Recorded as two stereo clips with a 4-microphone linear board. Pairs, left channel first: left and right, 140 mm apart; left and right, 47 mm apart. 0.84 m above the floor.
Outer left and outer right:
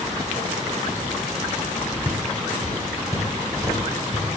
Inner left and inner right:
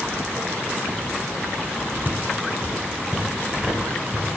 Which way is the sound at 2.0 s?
35° right (ahead or behind).